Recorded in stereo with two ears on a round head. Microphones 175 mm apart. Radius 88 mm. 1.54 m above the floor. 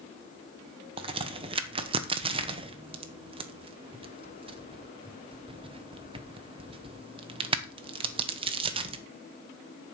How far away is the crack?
About 1.1 m.